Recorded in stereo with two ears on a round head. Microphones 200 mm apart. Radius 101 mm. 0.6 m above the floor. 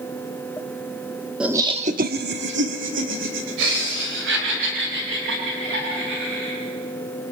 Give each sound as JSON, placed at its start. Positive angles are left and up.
{"t": 1.4, "sound": "laughter", "side_deg": -5, "distance_m": 1.1}